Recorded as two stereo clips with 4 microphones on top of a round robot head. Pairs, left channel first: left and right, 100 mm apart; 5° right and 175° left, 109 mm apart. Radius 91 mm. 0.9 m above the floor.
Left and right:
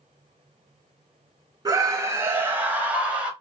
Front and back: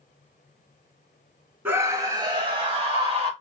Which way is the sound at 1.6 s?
120° right.